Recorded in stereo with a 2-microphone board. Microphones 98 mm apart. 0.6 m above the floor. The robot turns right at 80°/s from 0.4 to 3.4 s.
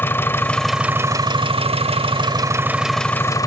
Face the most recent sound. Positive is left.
turn(degrees=35)